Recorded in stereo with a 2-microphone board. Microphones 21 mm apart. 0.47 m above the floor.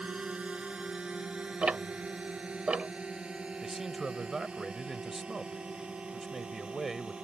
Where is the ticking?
70° right (ahead or behind).